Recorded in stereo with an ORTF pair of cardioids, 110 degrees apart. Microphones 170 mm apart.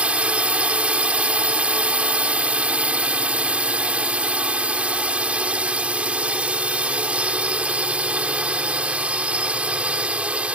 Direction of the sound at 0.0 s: 5° right.